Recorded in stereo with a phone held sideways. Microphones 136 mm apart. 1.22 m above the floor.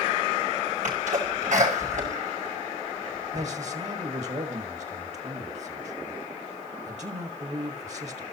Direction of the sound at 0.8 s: 70° right (ahead or behind).